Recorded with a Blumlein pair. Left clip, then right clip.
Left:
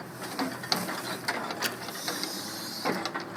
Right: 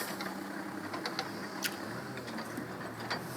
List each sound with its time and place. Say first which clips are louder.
1.6 s a splash: left 3 dB; 15° left, 1.0 m